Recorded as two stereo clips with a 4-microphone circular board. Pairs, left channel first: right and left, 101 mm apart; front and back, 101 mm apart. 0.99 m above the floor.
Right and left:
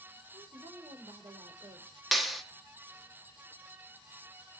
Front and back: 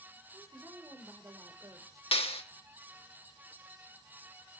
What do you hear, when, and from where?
0.3 s a woman speaking: 125° left, 3 m
2.1 s a clap: straight ahead, 2.0 m